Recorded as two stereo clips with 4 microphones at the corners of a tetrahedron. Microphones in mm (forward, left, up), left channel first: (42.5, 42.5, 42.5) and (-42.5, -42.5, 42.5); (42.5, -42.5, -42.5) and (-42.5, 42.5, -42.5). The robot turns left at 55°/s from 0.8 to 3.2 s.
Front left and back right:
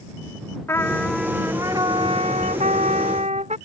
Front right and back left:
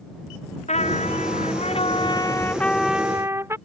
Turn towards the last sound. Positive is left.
turn(degrees=-155)